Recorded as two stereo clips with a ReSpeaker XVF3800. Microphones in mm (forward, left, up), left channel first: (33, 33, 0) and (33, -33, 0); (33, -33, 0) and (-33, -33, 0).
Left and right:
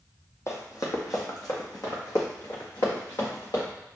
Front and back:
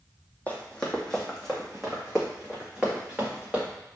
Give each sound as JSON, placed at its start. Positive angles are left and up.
{"t": 0.5, "sound": "running footsteps", "azimuth_deg": 65, "distance_m": 1.1}